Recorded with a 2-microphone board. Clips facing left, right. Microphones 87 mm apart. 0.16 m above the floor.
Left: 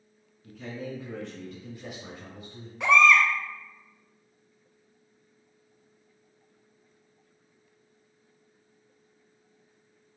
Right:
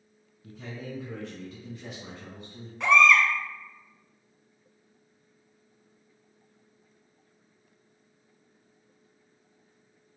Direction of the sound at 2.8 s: Centre (ahead or behind).